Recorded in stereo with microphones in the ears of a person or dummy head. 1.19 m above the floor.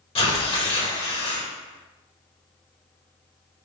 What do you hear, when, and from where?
0.1 s tearing paper: 30° left (ahead or behind), 1.3 m